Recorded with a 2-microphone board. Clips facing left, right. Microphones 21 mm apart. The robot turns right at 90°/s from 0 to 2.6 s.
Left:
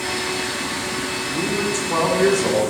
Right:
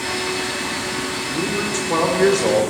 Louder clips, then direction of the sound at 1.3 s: Left 1 dB; 175° right.